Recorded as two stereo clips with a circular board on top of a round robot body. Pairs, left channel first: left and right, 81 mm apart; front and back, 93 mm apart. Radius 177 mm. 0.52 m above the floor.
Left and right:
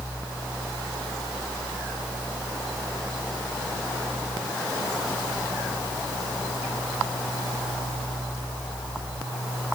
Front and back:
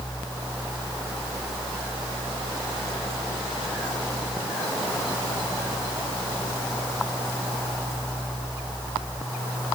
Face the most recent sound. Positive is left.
No sound to turn to.